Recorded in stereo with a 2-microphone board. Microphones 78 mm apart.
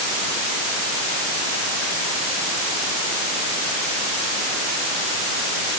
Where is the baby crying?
I don't hear a baby crying.